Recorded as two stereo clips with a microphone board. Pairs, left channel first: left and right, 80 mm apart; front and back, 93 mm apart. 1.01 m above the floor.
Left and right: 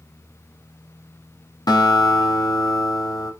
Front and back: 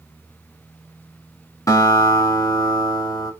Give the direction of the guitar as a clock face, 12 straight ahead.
10 o'clock.